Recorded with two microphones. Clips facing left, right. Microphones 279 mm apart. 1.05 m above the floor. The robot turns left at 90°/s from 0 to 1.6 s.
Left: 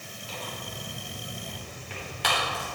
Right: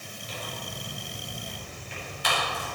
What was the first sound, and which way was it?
Tearing paper, 20° right (ahead or behind).